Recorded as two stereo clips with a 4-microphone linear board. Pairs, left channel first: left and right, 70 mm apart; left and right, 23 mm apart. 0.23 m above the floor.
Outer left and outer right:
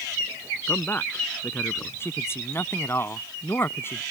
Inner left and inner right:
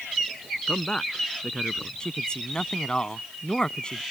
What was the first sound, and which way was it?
A man speaking, 30° left (ahead or behind).